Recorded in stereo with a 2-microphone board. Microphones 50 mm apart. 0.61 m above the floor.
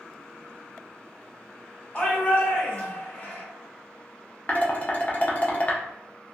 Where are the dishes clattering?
30° left (ahead or behind), 0.6 m.